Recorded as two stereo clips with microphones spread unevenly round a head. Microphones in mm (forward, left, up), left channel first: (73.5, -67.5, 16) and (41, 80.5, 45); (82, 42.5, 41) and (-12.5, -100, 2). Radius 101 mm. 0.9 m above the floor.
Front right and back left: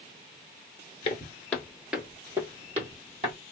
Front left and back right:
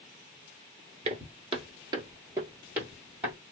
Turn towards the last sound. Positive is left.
turn(degrees=145)